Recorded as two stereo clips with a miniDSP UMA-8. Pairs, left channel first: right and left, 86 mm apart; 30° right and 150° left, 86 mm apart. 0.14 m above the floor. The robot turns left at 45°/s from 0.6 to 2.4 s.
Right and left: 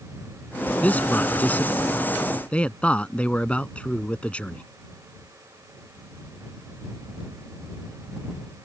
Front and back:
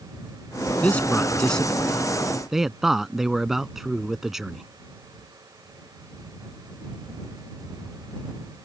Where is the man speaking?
60° right; by 4.6 s 130° right.